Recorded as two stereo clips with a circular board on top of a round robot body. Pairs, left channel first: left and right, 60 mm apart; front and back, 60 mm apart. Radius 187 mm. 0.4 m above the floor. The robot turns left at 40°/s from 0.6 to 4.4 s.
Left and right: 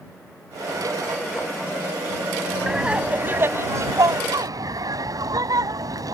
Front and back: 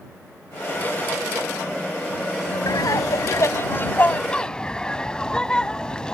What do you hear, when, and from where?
2.7 s laughter: 5° right; by 6.2 s 75° right